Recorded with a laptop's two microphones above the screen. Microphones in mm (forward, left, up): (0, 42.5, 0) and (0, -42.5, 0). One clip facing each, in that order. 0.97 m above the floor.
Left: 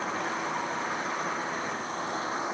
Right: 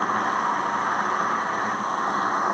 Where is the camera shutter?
I don't hear a camera shutter.